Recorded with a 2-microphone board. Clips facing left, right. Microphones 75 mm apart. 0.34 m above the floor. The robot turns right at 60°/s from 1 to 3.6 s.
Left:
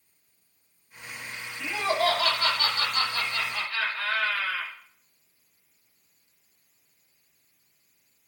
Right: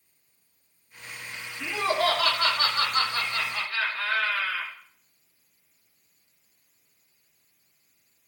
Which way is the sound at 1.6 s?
135° right.